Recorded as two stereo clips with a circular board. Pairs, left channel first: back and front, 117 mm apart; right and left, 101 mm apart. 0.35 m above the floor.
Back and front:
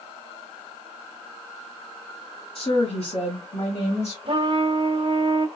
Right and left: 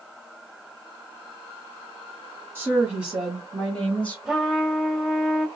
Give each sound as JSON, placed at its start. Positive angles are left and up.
{"t": 2.5, "sound": "a woman speaking", "azimuth_deg": 155, "distance_m": 2.0}
{"t": 4.2, "sound": "a trumpet", "azimuth_deg": 5, "distance_m": 0.8}